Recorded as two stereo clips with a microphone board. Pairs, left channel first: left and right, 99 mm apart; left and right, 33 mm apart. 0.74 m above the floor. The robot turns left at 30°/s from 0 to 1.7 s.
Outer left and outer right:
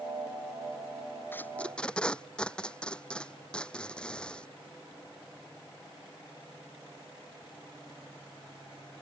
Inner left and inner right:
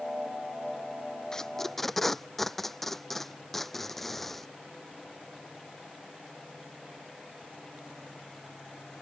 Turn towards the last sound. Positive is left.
turn(degrees=10)  # may be behind; listen again after turning